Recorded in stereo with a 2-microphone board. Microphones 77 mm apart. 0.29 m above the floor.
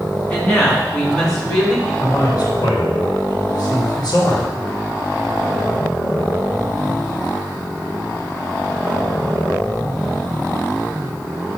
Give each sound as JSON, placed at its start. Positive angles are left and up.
{"t": 0.3, "sound": "a woman speaking", "side_deg": 10, "distance_m": 3.0}
{"t": 2.0, "sound": "a man speaking", "side_deg": 55, "distance_m": 3.0}